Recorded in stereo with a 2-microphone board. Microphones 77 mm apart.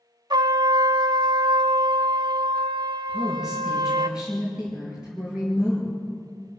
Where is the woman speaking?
10° right (ahead or behind), 7 m.